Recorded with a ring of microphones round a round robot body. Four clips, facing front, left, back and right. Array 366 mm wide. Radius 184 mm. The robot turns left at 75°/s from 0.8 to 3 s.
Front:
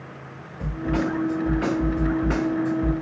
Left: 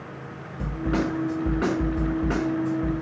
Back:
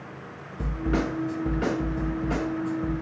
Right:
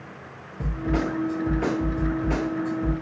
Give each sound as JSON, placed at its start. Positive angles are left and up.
{"t": 0.6, "sound": "a snare drum", "azimuth_deg": 135, "distance_m": 2.5}